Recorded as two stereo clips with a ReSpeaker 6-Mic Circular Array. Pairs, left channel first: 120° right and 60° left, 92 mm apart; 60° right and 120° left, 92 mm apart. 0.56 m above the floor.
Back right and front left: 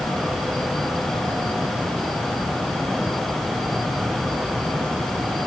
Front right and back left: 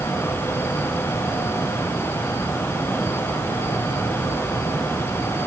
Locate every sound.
Only background noise.